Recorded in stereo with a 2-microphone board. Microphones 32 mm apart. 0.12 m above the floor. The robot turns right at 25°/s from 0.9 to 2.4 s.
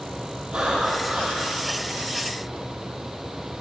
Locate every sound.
0.5 s breathing: 35° right (ahead or behind), 3 m; by 1.7 s 15° right (ahead or behind), 3 m